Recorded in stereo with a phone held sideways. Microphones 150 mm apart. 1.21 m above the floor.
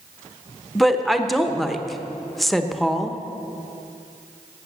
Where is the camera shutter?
I don't hear a camera shutter.